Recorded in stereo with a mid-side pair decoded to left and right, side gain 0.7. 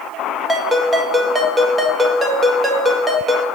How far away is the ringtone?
About 2.0 m.